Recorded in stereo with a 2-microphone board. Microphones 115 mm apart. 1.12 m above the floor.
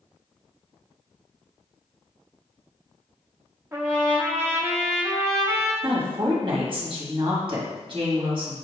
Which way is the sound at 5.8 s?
45° right (ahead or behind).